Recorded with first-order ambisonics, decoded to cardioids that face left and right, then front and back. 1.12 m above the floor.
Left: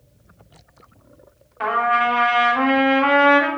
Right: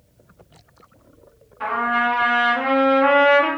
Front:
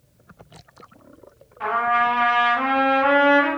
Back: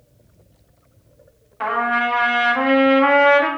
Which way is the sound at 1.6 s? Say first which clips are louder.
Left 2 dB, even; 135° left.